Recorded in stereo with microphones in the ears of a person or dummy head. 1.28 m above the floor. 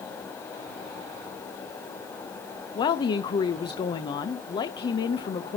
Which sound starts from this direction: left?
A woman speaking, at 2.8 s.